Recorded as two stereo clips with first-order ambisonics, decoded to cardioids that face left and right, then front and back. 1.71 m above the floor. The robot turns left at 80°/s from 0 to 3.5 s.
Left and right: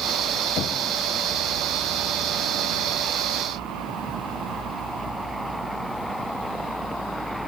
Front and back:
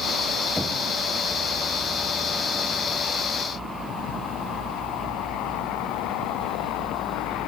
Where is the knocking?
85° left, 0.8 m; by 0.8 s 65° left, 0.8 m.